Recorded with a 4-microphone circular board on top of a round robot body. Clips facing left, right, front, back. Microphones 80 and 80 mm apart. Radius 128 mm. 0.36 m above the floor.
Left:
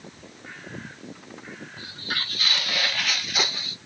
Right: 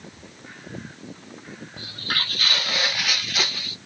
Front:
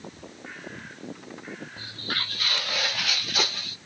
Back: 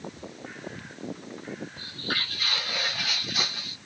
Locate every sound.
1.8 s footsteps: 70° right, 1.2 m; by 3.8 s 30° left, 1.0 m